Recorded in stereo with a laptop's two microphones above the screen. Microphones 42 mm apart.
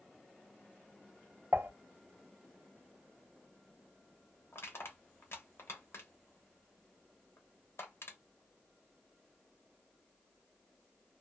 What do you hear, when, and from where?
1.5 s dishes clattering: 65° right (ahead or behind), 0.8 m
4.5 s crushing: 70° left (ahead or behind), 1.0 m